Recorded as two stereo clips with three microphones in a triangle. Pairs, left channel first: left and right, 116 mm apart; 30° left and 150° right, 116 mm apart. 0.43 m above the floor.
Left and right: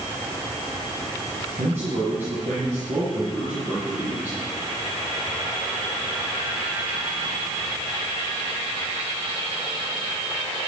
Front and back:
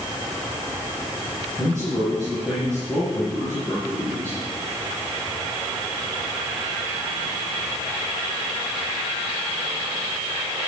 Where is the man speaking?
55° right, 8 m.